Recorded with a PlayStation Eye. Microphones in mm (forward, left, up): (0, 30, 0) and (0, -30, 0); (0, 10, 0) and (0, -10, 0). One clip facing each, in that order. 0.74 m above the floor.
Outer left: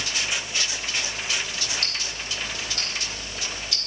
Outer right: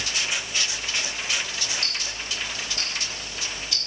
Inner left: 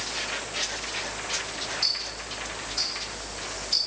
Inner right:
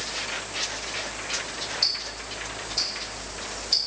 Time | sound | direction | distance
1.8 | ticking | 25° right (ahead or behind) | 5 m